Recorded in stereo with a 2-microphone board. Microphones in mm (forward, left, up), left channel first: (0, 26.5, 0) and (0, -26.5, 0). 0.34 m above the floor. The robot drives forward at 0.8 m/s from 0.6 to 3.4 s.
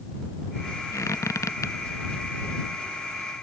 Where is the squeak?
80° left.